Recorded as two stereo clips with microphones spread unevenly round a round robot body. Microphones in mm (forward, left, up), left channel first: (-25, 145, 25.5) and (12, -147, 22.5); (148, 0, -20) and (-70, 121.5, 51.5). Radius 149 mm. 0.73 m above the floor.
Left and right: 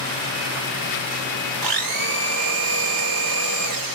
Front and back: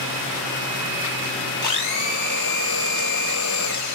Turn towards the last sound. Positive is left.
turn(degrees=-60)